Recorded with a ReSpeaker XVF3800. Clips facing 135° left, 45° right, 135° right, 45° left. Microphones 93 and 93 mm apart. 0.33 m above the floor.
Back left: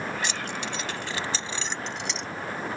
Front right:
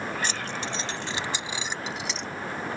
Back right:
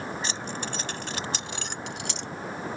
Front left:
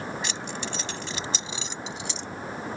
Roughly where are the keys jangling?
Right.